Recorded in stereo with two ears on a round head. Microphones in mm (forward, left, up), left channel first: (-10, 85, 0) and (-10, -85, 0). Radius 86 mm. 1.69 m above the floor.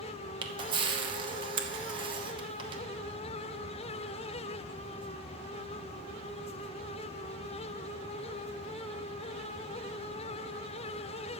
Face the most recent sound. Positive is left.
turn(degrees=-25)  # may be behind; listen again after turning